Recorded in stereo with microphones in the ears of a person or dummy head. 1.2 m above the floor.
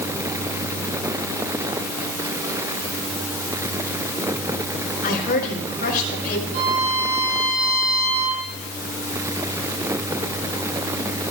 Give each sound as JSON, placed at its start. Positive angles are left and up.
{"t": 5.0, "sound": "a woman speaking", "side_deg": 50, "distance_m": 5.0}
{"t": 6.5, "sound": "a violin", "side_deg": -50, "distance_m": 4.5}